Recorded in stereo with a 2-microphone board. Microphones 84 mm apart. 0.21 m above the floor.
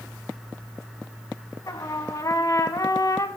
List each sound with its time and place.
1.7 s a trumpet: 45° left (ahead or behind), 0.9 m